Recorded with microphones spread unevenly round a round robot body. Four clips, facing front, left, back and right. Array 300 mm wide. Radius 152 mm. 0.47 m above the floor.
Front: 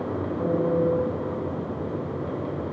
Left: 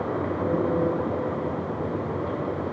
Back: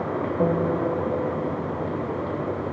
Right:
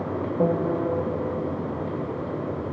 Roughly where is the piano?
Behind right.